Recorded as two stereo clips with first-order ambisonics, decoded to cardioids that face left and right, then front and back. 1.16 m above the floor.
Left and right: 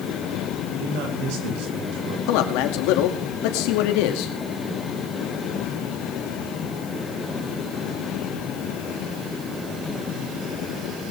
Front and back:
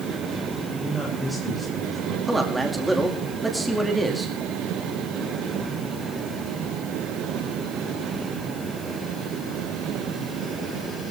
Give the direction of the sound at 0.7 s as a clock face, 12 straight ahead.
3 o'clock.